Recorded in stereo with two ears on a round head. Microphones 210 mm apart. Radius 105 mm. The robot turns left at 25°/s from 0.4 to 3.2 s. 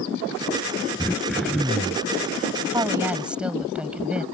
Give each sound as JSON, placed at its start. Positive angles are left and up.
{"t": 1.0, "sound": "throat clearing", "side_deg": 10}
{"t": 2.7, "sound": "a woman speaking", "side_deg": -15}